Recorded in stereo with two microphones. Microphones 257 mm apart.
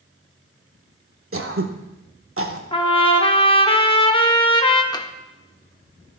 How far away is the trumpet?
About 0.7 m.